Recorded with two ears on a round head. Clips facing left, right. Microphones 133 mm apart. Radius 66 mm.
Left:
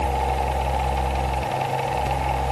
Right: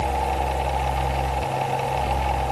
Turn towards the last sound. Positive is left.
No sound to turn to.